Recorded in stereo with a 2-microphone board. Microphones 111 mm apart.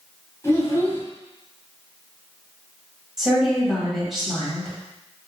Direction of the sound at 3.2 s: Centre (ahead or behind).